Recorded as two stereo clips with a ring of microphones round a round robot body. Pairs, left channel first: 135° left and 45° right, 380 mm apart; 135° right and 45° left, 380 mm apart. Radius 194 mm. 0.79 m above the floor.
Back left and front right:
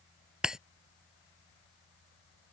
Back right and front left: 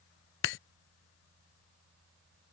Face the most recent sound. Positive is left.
turn(degrees=-130)